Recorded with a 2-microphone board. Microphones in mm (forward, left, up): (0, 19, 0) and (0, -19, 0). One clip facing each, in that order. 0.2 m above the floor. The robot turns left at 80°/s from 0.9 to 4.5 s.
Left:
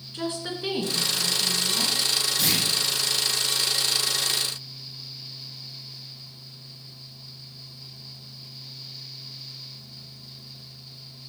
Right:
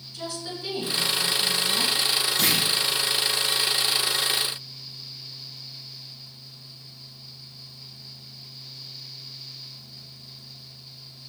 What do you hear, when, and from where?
0.1 s a woman speaking: 50° left, 3 m; by 1.9 s 35° right, 3 m
2.4 s a clunk: 55° right (ahead or behind), 5 m; by 2.6 s 75° right (ahead or behind), 5 m